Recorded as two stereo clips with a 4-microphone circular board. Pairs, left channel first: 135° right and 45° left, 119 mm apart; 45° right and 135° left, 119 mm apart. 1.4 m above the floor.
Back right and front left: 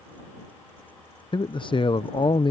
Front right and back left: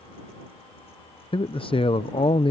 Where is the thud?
I don't hear a thud.